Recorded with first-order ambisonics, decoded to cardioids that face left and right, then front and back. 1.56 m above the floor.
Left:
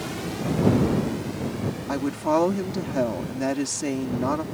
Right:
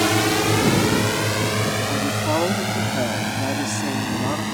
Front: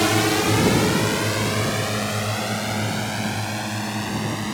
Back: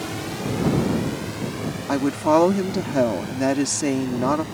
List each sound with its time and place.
0.0 s a drone: 50° right; by 4.5 s 60° right
1.9 s a woman speaking: 175° left